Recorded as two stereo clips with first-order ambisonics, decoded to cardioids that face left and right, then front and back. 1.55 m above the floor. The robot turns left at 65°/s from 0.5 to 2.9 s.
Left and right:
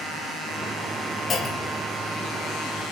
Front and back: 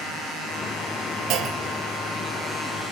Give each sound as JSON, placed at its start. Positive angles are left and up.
{"t": 1.3, "sound": "a clunk", "azimuth_deg": 155, "distance_m": 1.9}